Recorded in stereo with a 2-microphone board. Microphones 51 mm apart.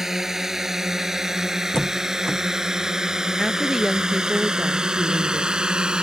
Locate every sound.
0.0 s a drone: 5° right (ahead or behind); by 6.0 s 15° right (ahead or behind)
1.7 s a door slam: 10° left (ahead or behind)
3.4 s a woman speaking: centre (ahead or behind)